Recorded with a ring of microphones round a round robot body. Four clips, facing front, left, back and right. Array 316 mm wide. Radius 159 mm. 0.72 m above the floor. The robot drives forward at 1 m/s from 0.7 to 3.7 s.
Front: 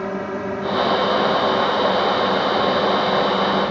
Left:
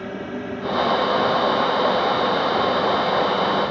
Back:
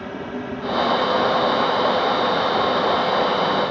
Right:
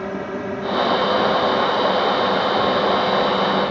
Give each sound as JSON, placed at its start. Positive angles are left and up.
{"t": 0.0, "sound": "a drone", "azimuth_deg": -30}